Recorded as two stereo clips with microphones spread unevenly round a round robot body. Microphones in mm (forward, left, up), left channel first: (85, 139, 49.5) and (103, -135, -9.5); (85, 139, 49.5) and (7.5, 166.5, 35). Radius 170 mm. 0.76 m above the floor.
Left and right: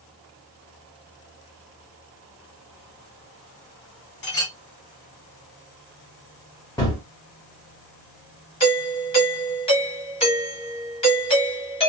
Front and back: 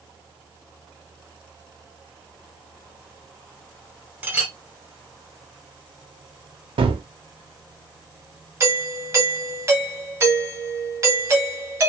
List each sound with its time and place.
4.2 s a clink: 90° left, 2 m
6.8 s a gunshot: 175° left, 0.6 m
8.6 s a doorbell: 170° left, 1.2 m